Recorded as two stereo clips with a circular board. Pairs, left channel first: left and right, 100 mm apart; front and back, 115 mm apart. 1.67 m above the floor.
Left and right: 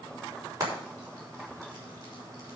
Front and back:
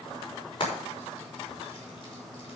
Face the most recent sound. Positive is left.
turn(degrees=-40)